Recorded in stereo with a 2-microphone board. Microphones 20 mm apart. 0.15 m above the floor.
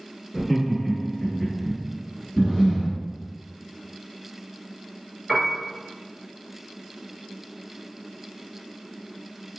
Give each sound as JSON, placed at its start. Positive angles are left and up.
{"t": 0.3, "sound": "laughter", "side_deg": 25, "distance_m": 1.3}
{"t": 2.4, "sound": "breathing", "side_deg": 25, "distance_m": 1.3}
{"t": 5.3, "sound": "a piano", "side_deg": 5, "distance_m": 1.4}